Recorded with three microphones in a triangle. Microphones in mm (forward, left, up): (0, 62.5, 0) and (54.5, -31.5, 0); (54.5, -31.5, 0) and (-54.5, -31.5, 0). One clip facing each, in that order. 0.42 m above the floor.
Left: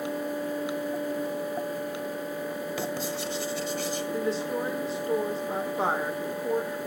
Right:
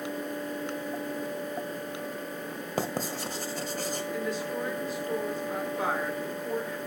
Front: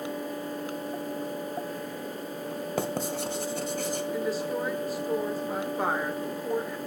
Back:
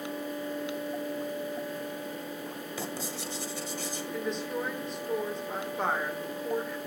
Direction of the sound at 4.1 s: 80° left.